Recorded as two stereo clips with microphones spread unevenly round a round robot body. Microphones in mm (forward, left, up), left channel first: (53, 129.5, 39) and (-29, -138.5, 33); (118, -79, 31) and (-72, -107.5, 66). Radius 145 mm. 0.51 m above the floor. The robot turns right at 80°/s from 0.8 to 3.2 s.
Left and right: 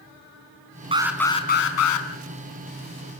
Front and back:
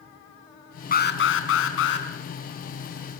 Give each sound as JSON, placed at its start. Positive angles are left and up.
{"t": 0.9, "sound": "an alarm", "azimuth_deg": -35, "distance_m": 3.5}